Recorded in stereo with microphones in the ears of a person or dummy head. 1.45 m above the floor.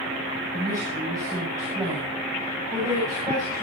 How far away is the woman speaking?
About 8 m.